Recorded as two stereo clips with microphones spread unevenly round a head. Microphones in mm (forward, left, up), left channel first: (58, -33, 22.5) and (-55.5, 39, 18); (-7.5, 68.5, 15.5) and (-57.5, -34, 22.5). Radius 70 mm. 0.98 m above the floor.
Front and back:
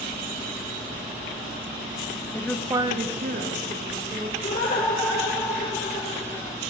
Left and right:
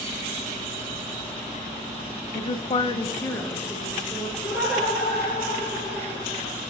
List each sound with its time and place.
2.3 s a woman speaking: 35° left, 0.6 m; by 4.3 s 145° left, 1.6 m
4.4 s laughter: 35° right, 1.4 m